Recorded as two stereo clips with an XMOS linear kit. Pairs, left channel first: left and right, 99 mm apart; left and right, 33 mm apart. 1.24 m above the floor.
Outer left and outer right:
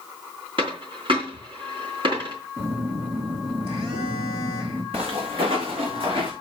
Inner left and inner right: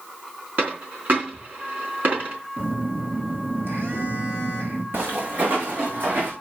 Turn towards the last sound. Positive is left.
turn(degrees=-65)  # may be behind; listen again after turning